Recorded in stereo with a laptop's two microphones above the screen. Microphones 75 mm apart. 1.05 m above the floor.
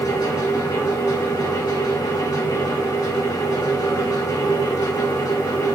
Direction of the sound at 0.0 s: 55° left (ahead or behind).